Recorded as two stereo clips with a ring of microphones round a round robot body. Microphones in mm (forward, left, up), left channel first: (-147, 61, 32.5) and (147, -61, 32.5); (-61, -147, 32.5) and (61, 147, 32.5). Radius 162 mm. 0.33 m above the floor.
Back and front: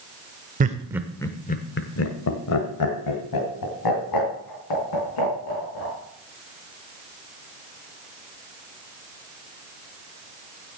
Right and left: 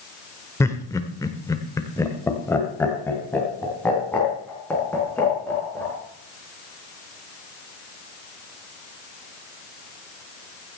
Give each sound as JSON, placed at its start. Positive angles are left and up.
{"t": 0.6, "sound": "laughter", "azimuth_deg": -40, "distance_m": 0.9}